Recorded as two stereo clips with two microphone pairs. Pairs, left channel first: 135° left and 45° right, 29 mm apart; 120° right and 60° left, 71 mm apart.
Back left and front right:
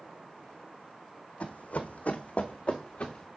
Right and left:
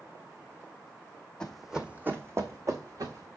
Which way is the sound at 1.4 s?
160° left.